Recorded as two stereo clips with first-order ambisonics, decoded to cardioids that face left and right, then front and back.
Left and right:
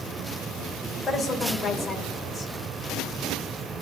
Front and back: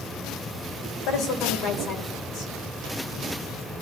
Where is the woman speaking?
15° left, 2.5 m.